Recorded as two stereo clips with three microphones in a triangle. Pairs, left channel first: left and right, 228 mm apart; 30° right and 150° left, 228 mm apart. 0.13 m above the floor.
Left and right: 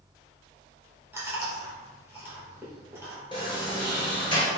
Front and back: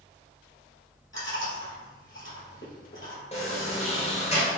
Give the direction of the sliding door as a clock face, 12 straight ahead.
11 o'clock.